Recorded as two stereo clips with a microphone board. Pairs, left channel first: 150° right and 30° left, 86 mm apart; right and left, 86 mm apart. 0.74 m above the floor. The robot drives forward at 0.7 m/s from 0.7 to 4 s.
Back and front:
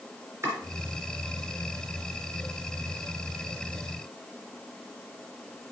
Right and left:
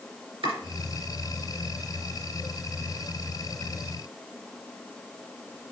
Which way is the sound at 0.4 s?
90° left.